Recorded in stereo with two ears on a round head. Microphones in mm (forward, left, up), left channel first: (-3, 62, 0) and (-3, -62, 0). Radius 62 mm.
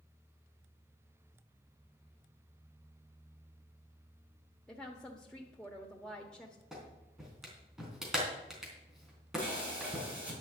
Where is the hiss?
10° right (ahead or behind), 6 m.